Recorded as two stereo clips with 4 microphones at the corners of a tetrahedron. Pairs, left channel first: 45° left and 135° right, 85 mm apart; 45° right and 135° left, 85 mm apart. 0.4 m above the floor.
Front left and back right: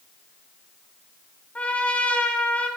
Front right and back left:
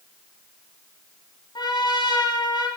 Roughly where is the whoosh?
No whoosh in this recording.